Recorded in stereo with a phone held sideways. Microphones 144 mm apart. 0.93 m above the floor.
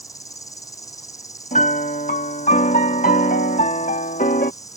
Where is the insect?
25° left (ahead or behind).